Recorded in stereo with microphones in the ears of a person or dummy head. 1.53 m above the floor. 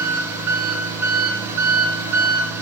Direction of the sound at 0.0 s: 15° right (ahead or behind).